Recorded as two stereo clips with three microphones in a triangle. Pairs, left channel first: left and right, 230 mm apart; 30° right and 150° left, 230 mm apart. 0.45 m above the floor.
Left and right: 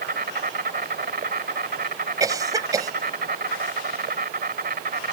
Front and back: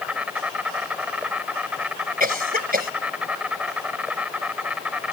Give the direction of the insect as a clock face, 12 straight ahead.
4 o'clock.